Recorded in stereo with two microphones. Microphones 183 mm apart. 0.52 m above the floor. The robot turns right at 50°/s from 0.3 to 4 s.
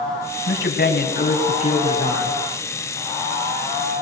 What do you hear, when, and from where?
0.5 s a man speaking: 80° left, 4 m; by 2.4 s 175° left, 4 m